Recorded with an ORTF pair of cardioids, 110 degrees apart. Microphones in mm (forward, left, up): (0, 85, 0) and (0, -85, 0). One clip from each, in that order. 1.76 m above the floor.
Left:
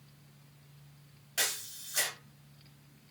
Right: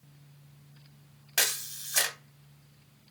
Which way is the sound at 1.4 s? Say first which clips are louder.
Right 5 dB; 50° right.